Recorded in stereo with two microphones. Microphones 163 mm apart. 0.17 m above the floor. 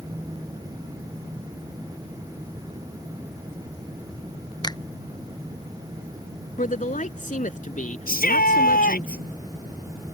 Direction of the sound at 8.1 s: 65° left (ahead or behind).